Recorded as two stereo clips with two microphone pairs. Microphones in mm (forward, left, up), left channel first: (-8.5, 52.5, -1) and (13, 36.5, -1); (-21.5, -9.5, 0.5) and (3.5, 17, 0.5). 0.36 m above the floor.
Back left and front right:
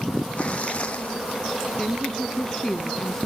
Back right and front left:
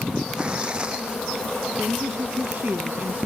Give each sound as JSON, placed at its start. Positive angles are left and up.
{"t": 0.4, "sound": "tearing paper", "azimuth_deg": 110}
{"t": 1.8, "sound": "a woman speaking", "azimuth_deg": 75}